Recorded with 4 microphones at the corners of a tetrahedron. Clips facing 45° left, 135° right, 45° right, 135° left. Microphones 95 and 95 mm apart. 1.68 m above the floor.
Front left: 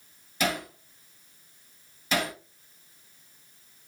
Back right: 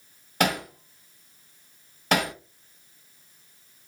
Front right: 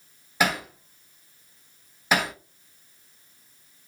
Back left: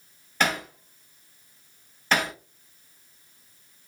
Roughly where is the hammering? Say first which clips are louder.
Back right 4 dB, front right 1 dB; behind right.